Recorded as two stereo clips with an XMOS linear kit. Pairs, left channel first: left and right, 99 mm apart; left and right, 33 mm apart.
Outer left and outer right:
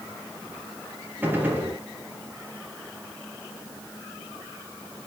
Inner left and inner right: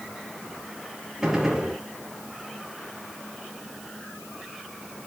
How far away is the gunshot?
About 2.5 m.